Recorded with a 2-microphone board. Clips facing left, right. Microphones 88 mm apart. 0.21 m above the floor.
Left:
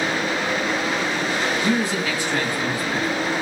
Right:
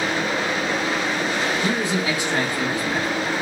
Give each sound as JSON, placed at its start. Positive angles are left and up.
{"t": 1.6, "sound": "a man speaking", "side_deg": -25, "distance_m": 1.4}